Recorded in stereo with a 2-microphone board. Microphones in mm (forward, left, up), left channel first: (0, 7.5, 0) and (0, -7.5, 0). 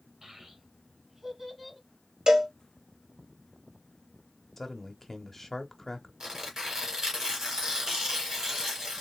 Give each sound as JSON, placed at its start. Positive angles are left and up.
{"t": 0.2, "sound": "a child speaking", "side_deg": -50, "distance_m": 3.0}
{"t": 2.3, "sound": "a cowbell", "side_deg": -45, "distance_m": 1.4}
{"t": 4.6, "sound": "a man speaking", "side_deg": 20, "distance_m": 1.2}
{"t": 6.2, "sound": "tearing paper", "side_deg": -50, "distance_m": 2.5}